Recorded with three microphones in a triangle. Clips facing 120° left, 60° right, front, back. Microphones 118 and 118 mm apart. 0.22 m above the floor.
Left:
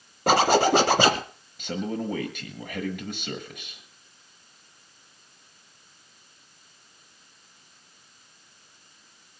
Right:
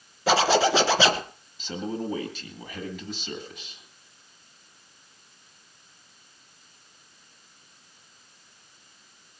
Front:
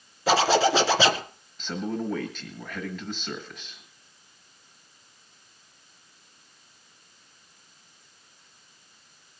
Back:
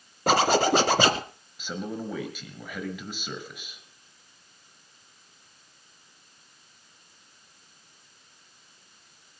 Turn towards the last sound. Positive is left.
turn(degrees=100)